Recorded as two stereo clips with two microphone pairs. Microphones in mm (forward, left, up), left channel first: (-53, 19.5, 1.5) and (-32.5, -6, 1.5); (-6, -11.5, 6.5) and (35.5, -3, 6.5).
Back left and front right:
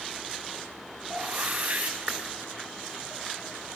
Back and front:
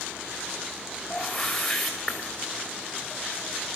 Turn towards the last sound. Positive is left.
turn(degrees=-80)